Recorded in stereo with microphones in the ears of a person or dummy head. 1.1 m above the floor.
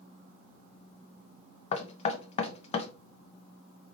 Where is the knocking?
35° left (ahead or behind), 0.5 m.